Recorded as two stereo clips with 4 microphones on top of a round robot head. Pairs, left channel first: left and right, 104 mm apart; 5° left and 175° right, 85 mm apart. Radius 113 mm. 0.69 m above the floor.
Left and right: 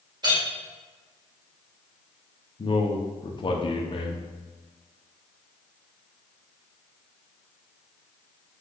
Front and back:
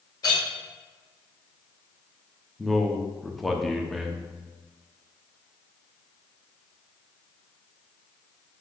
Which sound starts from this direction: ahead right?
A clink, at 0.2 s.